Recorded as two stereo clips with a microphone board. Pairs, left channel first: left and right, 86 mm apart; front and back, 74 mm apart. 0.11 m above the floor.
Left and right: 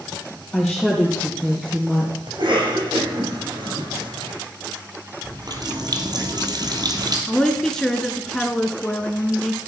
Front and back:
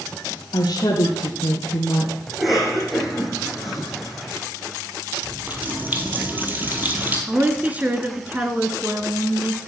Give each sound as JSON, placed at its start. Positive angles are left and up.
{"t": 0.5, "sound": "a woman speaking", "azimuth_deg": 0, "distance_m": 3.5}
{"t": 2.3, "sound": "a cough", "azimuth_deg": -95, "distance_m": 5.5}
{"t": 5.2, "sound": "a running tap", "azimuth_deg": -115, "distance_m": 2.0}
{"t": 7.3, "sound": "a woman speaking", "azimuth_deg": 165, "distance_m": 1.4}